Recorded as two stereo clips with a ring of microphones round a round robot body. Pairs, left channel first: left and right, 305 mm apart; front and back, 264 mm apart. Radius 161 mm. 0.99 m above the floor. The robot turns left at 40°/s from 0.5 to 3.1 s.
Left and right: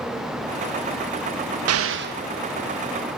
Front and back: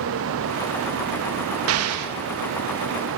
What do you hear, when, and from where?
1.7 s an explosion: 135° right, 1.0 m; by 2.1 s 155° right, 1.0 m